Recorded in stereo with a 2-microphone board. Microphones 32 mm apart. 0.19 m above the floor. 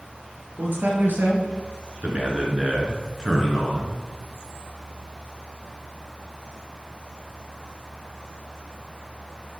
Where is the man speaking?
70° right (ahead or behind), 3 m; by 4.0 s 5° left (ahead or behind), 2.5 m.